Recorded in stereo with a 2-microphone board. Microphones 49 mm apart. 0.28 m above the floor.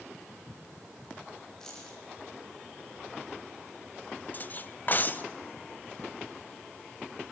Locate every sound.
1.6 s keys jangling: 10° left (ahead or behind), 8 m
4.3 s cutlery clinking: 40° left (ahead or behind), 0.7 m